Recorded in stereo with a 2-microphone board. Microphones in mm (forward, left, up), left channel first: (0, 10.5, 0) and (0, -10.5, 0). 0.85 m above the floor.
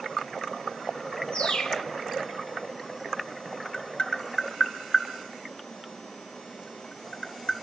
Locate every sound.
1.3 s a bird: 65° left (ahead or behind), 1.2 m
3.7 s tapping: 65° left (ahead or behind), 1.8 m